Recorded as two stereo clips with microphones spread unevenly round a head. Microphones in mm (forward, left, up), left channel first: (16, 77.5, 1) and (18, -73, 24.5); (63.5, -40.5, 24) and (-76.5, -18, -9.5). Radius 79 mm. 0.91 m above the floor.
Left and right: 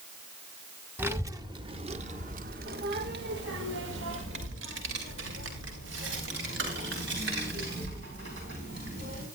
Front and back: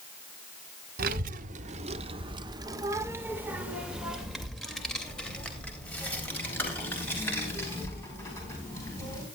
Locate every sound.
1.0 s a child speaking: 170° right, 1.2 m; by 9.2 s 80° right, 5 m